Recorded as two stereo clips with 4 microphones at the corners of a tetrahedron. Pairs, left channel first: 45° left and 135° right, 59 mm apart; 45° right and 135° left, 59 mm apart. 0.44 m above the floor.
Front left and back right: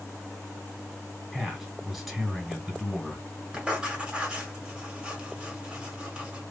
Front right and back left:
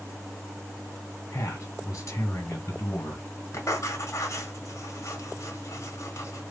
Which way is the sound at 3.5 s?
65° right.